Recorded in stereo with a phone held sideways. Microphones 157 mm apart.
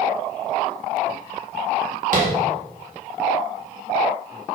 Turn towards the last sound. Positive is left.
turn(degrees=-60)  # may be behind; listen again after turning